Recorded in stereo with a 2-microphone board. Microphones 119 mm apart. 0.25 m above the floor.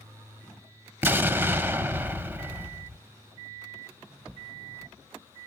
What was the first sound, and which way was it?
An explosion, 15° right (ahead or behind).